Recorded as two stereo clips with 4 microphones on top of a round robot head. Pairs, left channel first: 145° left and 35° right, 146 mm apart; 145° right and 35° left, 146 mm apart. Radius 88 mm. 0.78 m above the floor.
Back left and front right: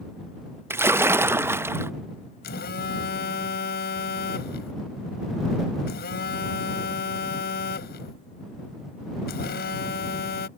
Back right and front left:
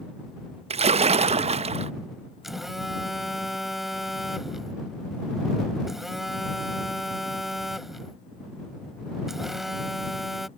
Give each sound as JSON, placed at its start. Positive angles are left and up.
{"t": 0.7, "sound": "a splash", "azimuth_deg": 30}
{"t": 2.4, "sound": "a phone buzzing", "azimuth_deg": 125}